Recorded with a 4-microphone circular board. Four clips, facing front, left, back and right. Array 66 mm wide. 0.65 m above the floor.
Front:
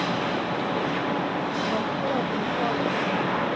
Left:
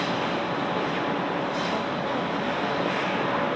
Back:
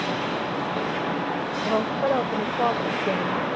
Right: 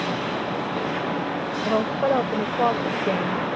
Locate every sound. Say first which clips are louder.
1.6 s a woman speaking: right 6 dB, back 3 dB; 115° right